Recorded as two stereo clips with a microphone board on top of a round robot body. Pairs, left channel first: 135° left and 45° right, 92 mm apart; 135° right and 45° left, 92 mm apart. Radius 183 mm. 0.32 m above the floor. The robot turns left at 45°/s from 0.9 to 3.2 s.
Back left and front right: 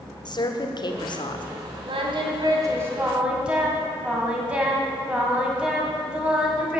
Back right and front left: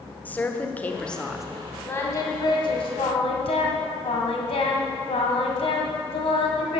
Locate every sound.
0.2 s a woman speaking: 155° left, 1.5 m; by 1.4 s 130° left, 1.5 m
1.9 s singing: 65° right, 1.9 m; by 6.8 s 125° right, 1.9 m